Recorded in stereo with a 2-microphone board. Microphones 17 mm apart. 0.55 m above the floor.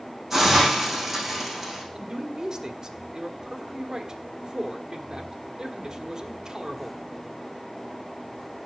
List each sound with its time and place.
0.3 s a hiss: 10° right (ahead or behind), 5 m
1.9 s a man speaking: 35° right (ahead or behind), 1.2 m